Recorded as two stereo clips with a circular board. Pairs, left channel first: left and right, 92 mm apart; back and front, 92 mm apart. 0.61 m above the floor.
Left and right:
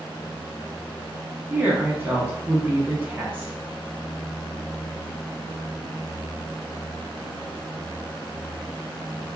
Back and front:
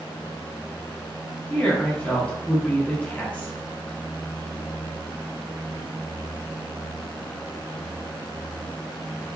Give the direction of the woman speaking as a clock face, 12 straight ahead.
4 o'clock.